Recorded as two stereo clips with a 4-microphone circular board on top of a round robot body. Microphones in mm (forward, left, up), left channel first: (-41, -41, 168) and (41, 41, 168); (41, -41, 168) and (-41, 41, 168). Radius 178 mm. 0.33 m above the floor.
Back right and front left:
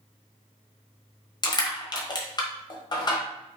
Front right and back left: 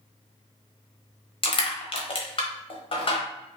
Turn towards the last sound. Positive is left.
turn(degrees=-85)